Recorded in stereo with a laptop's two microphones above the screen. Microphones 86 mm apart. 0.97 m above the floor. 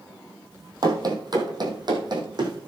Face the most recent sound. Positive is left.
turn(degrees=-50)  # may be behind; listen again after turning